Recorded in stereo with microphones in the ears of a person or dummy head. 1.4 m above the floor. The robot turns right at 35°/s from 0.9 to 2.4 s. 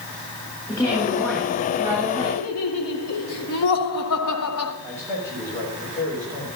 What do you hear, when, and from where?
0.7 s a woman speaking: 160° left, 3.5 m; by 2.4 s 150° right, 3.5 m
2.3 s laughter: 80° left, 1.4 m
4.8 s a man speaking: 15° left (ahead or behind), 6.5 m